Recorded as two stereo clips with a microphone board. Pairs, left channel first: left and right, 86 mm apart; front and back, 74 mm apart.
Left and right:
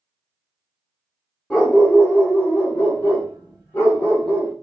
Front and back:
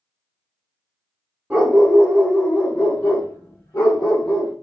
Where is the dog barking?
145° left, 1.1 m; by 4.5 s 25° left, 2 m.